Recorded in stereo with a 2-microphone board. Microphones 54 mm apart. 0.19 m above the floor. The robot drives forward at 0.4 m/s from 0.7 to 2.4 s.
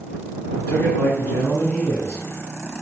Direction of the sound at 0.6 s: 25° left (ahead or behind).